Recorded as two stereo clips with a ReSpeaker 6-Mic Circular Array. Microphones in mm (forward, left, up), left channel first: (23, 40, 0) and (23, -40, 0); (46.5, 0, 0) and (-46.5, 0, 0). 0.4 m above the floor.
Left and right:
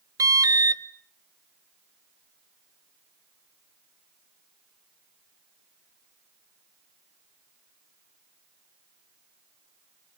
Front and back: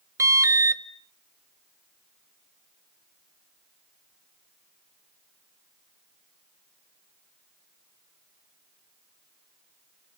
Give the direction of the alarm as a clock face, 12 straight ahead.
4 o'clock.